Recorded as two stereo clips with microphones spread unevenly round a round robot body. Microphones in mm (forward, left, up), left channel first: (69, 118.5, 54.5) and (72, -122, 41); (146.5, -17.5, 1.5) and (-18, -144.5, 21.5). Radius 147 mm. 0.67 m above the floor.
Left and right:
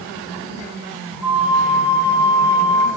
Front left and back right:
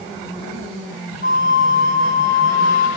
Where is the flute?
175° right, 0.6 m.